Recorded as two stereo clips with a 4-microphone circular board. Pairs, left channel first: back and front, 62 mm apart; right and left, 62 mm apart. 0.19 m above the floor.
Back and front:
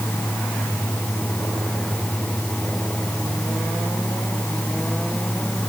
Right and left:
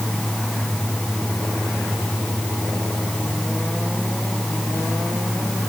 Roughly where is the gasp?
I don't hear a gasp.